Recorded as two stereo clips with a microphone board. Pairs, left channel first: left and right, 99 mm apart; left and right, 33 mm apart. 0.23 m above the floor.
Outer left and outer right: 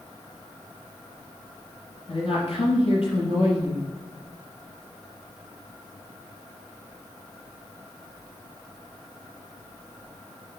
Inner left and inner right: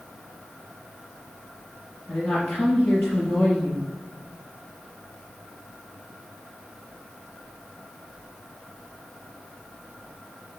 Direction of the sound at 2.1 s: 65° left (ahead or behind).